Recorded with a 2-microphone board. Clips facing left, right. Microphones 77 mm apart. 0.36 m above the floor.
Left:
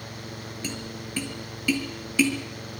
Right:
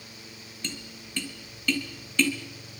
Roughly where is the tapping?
Centre.